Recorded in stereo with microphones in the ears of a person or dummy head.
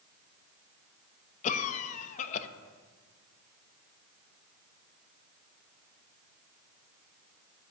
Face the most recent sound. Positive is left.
turn(degrees=40)  # may be behind; listen again after turning